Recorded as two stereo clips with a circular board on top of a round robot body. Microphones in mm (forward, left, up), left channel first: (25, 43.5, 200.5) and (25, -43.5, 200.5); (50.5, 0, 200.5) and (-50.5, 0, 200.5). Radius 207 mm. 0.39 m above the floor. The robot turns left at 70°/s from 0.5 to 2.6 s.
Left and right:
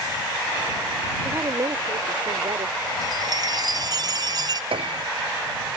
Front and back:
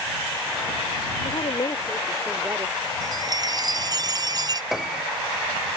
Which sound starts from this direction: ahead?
A woman speaking, at 1.2 s.